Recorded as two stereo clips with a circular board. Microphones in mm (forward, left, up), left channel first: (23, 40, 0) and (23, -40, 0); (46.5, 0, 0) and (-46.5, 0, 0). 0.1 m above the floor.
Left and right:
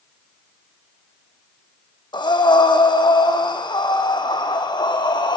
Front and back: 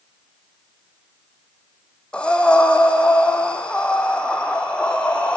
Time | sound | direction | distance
2.1 | breathing | 80° left | 3 m